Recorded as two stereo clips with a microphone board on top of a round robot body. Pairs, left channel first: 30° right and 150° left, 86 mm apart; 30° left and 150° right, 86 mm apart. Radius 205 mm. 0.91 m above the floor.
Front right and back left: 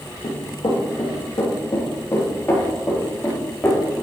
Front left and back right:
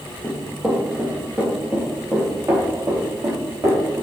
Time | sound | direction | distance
0.2 | running footsteps | 60° right | 2.5 m